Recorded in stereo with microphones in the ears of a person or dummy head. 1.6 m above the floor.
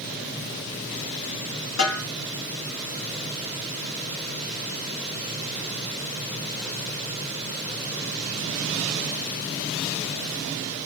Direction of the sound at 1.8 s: 75° left (ahead or behind).